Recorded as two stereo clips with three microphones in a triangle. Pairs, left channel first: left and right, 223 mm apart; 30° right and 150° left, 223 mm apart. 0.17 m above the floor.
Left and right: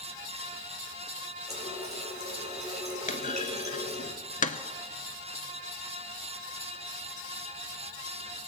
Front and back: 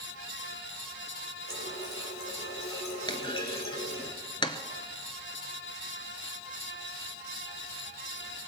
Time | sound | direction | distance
1.5 | a running tap | 30° right | 3 m
3.1 | a clunk | 35° left | 0.8 m